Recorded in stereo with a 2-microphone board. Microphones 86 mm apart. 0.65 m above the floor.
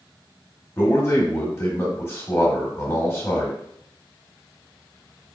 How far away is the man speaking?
About 1.3 m.